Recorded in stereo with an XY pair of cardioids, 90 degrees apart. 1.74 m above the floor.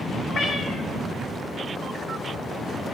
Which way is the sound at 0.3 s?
60° left.